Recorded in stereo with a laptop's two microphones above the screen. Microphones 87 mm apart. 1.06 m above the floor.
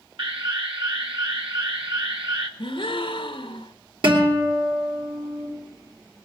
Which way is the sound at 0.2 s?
75° right (ahead or behind).